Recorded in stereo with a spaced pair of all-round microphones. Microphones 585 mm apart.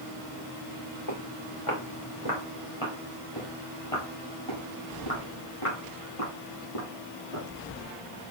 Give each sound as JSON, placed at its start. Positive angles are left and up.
{"t": 1.1, "sound": "footsteps", "side_deg": 55, "distance_m": 8.5}